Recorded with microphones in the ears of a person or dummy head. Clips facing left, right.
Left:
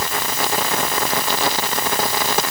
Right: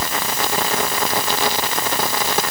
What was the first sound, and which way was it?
Only background noise.